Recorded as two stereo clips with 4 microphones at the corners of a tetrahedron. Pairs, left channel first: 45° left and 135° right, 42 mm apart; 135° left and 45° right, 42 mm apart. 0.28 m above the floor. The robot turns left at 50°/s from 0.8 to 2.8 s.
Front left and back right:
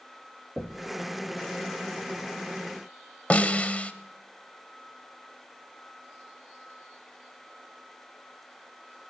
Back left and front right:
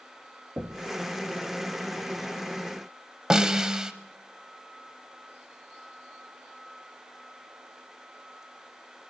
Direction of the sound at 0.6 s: 80° right.